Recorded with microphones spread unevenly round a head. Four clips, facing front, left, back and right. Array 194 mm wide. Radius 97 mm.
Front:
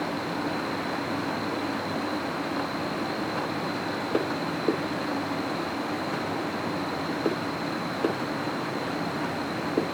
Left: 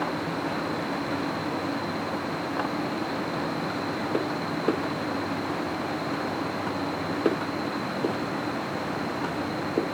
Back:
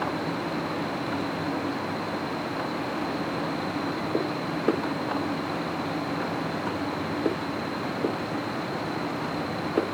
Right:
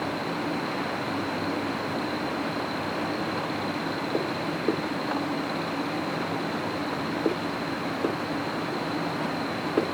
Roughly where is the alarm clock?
I don't hear an alarm clock.